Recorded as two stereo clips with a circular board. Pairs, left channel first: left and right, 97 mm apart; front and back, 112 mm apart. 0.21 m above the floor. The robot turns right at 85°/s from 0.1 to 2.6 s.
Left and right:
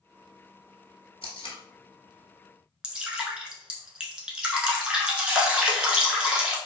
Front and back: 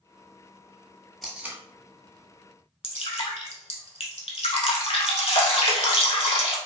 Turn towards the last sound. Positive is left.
turn(degrees=-10)